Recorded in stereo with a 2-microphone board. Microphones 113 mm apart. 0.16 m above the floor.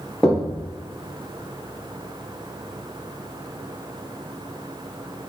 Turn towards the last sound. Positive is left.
turn(degrees=5)  # may be behind; listen again after turning